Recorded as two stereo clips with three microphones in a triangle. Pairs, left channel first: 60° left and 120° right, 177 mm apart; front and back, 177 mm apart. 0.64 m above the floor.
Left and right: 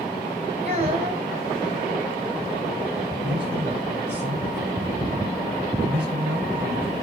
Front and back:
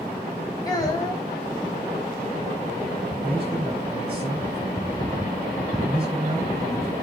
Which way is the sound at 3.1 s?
115° right.